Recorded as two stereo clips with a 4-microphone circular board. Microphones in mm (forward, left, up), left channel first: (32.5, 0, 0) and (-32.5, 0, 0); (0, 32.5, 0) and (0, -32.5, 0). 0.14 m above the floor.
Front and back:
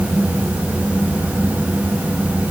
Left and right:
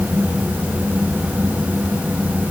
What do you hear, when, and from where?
Only background noise.